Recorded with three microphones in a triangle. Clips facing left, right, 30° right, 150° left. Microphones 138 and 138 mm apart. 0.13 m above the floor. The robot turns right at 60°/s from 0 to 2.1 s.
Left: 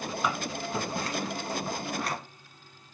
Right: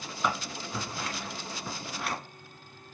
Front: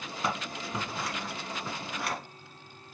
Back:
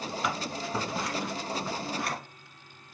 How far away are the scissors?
About 1.6 m.